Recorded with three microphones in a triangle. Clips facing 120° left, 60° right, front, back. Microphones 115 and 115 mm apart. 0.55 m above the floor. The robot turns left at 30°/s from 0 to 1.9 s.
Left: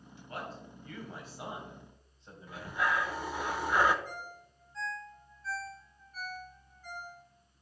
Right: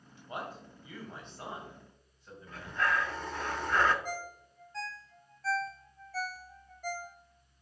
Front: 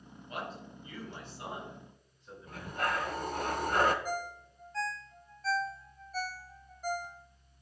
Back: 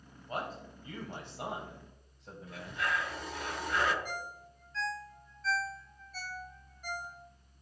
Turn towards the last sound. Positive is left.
turn(degrees=-50)